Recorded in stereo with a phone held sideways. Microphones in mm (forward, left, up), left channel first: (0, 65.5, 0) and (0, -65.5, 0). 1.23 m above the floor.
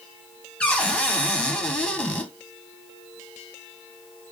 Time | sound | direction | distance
0.6 | a cupboard door | 10° left (ahead or behind) | 0.6 m